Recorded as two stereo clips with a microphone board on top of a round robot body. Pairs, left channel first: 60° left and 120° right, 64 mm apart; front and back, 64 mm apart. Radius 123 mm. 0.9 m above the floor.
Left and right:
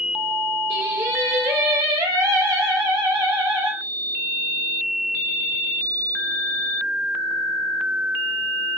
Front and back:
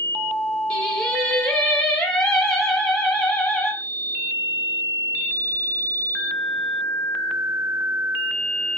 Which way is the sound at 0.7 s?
75° right.